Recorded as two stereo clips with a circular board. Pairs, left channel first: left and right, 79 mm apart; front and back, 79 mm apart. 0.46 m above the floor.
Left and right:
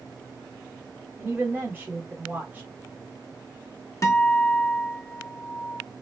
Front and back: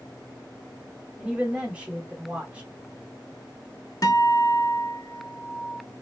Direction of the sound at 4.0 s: 40° left.